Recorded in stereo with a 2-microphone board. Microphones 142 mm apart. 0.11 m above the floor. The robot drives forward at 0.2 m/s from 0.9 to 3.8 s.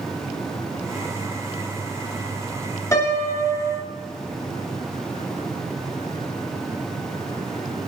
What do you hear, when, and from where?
2.9 s a piano: 25° left (ahead or behind), 1.2 m; by 3.9 s 20° left (ahead or behind), 1.3 m